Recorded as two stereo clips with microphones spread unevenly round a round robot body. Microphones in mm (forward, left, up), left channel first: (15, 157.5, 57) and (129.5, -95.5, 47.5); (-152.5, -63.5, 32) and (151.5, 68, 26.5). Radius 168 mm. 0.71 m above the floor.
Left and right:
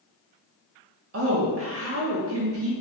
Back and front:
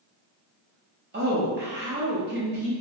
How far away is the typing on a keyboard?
No typing on a keyboard in this recording.